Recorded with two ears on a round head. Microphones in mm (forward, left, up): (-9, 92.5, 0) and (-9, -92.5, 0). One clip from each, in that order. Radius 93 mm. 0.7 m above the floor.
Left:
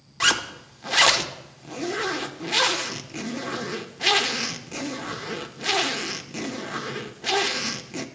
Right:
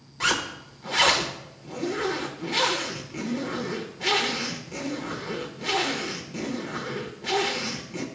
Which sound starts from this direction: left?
A zipper, at 0.2 s.